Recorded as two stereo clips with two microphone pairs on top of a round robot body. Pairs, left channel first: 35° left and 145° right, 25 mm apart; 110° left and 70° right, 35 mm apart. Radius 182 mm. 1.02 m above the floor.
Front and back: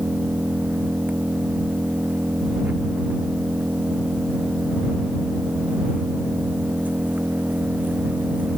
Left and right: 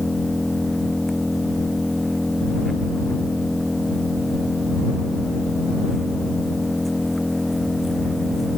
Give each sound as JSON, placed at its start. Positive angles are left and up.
{"t": 0.0, "sound": "an engine running", "azimuth_deg": -160}